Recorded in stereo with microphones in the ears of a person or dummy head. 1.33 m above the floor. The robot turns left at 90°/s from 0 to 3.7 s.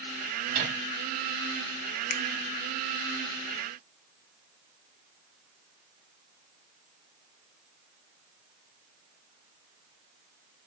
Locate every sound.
0.5 s a microwave: 45° right (ahead or behind), 5.5 m; by 0.8 s 75° right (ahead or behind), 5.5 m
2.1 s a finger snap: 50° left (ahead or behind), 0.7 m; by 2.2 s 60° left (ahead or behind), 0.7 m